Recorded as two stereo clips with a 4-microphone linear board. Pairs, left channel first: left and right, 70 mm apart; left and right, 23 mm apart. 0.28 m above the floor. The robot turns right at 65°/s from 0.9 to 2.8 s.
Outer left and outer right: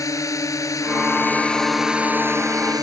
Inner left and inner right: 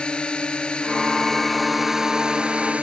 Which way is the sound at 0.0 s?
125° left.